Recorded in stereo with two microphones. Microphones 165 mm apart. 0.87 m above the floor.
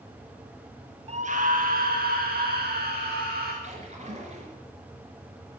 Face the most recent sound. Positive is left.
turn(degrees=-40)  # may be behind; listen again after turning